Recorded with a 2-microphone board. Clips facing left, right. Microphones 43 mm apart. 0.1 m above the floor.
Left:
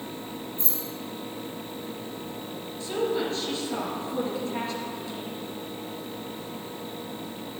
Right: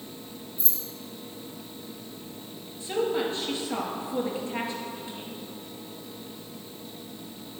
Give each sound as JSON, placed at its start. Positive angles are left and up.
{"t": 0.6, "sound": "keys jangling", "side_deg": 65, "distance_m": 2.0}
{"t": 2.8, "sound": "a woman speaking", "side_deg": -20, "distance_m": 2.0}